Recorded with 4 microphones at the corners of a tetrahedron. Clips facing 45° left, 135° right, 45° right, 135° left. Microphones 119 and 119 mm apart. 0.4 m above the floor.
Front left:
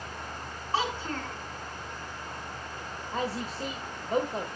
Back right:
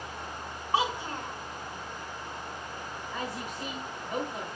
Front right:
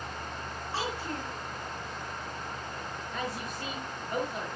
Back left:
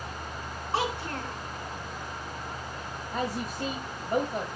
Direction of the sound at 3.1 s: 95° left.